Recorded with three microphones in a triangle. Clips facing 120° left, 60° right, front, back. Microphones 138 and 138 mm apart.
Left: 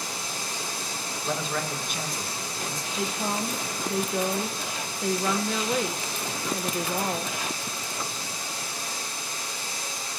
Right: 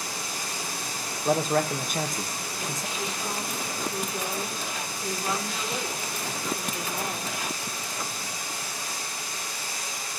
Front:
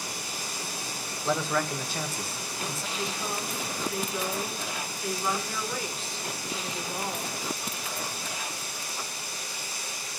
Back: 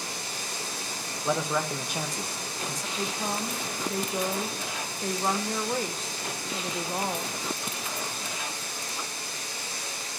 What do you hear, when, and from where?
0.0 s running water: straight behind, 6.5 m
1.2 s a man speaking: 105° right, 1.3 m
3.0 s a woman speaking: 130° left, 1.2 m